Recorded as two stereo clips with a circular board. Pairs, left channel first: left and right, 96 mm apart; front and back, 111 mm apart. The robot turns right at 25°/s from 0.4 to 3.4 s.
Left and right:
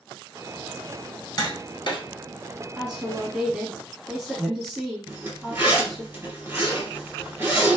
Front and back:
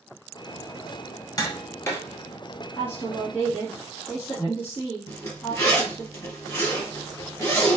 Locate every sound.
1.4 s tapping: 50° left, 1.3 m; by 2.0 s 70° left, 1.3 m
2.8 s a woman speaking: 15° right, 1.2 m; by 6.1 s 5° left, 1.2 m
5.1 s a zipper: 40° right, 1.9 m